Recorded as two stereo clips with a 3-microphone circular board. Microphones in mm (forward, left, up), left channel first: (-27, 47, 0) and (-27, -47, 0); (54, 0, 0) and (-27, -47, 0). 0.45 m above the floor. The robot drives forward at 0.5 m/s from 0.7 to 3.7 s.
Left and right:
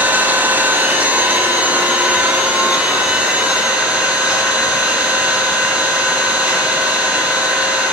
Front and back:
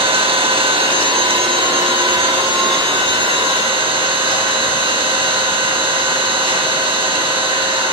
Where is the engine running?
160° right, 2 m; by 7.9 s 170° right, 3.5 m.